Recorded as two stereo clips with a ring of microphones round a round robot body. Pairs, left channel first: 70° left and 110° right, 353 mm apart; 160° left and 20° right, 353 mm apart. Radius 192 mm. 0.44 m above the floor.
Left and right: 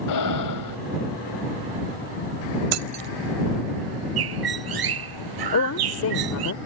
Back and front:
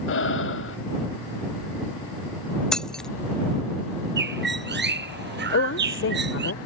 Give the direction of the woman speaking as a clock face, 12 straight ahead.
8 o'clock.